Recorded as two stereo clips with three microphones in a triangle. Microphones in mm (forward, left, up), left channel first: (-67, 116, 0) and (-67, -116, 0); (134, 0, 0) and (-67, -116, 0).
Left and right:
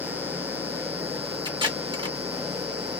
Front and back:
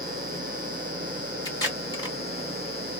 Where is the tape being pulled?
35° right, 1.8 m.